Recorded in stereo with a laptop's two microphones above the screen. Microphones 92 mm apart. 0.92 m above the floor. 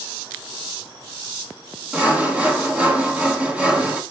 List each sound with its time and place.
1.9 s sawing: 15° right (ahead or behind), 1.4 m